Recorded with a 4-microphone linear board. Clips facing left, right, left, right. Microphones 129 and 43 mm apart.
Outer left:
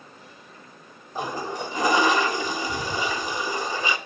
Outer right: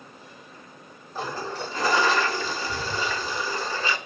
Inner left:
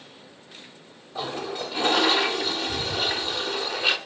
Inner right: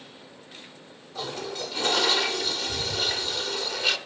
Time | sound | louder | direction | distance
1.1 | a toilet flushing | outer left 2 dB, inner left 3 dB | 15° left (ahead or behind) | 1.7 m